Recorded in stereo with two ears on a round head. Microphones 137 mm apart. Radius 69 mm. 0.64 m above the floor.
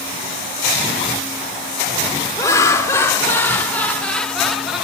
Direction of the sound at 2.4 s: 20° left (ahead or behind).